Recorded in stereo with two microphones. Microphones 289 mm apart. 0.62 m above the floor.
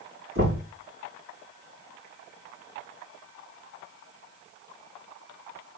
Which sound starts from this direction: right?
Knocking, at 0.3 s.